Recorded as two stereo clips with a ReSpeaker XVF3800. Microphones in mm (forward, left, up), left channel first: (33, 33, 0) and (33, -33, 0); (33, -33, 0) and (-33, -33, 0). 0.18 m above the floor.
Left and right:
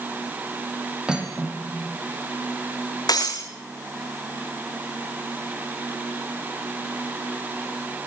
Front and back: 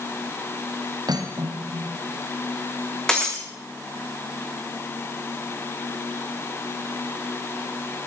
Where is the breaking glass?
80° left, 6 m.